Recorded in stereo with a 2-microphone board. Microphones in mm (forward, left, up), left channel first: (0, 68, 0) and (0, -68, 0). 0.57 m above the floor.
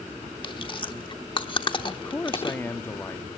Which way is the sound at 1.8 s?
20° left (ahead or behind).